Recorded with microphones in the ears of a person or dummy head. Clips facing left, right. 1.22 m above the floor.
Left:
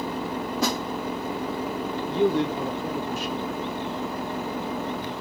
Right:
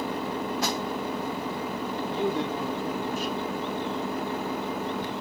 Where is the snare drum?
70° left (ahead or behind), 1.7 m.